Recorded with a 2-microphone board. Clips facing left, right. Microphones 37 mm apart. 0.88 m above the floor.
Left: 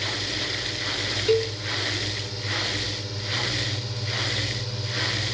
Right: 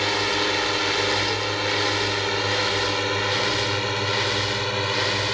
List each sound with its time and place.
0.0 s a drone: 65° right (ahead or behind); by 5.3 s 55° right (ahead or behind)
1.3 s a cowbell: 50° left (ahead or behind)